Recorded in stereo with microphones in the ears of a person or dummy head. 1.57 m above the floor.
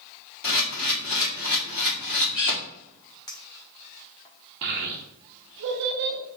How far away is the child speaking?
About 0.6 m.